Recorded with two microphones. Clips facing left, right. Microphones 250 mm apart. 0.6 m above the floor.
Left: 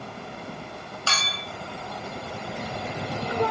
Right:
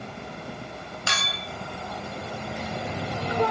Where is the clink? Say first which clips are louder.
Even; 15° right (ahead or behind), 2 m.